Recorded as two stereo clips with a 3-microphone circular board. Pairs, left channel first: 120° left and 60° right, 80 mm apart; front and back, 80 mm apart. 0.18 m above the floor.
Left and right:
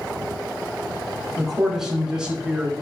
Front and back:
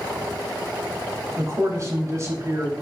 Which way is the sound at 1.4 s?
145° right.